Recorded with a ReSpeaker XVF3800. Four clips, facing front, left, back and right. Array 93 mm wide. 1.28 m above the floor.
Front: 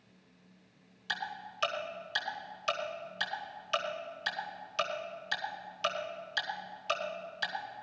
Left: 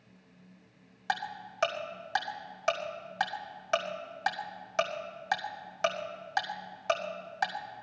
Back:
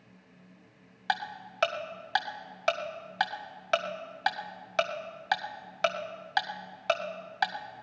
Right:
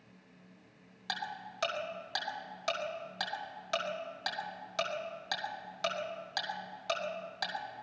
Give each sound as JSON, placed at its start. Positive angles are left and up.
{"t": 1.1, "sound": "ticking", "azimuth_deg": 160, "distance_m": 1.9}